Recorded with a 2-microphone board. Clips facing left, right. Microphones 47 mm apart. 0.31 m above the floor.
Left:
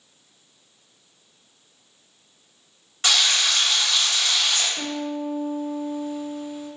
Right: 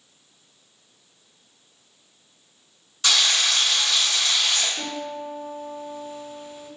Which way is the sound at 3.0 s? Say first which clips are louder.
Even; 35° left (ahead or behind).